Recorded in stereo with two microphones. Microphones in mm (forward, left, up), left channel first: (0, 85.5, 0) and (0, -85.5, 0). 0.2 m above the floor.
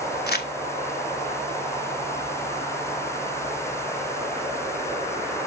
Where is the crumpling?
70° left (ahead or behind), 0.7 m.